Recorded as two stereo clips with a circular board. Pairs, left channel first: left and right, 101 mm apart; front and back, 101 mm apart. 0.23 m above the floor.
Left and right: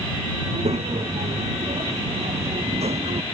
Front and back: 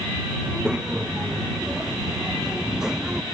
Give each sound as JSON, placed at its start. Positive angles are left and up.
{"t": 0.4, "sound": "a child speaking", "azimuth_deg": -100}